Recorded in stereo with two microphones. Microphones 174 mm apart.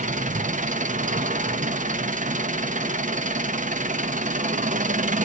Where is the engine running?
45° right (ahead or behind), 0.7 m.